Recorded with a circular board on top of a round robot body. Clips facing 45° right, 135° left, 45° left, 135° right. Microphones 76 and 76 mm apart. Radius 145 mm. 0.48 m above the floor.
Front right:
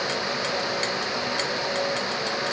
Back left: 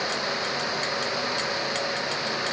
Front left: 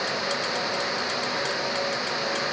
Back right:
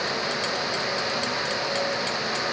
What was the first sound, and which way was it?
Only background noise.